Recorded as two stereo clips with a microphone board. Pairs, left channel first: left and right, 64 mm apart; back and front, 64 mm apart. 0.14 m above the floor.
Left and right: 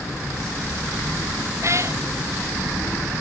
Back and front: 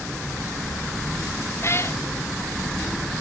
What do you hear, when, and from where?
1.6 s a cat meowing: 135° right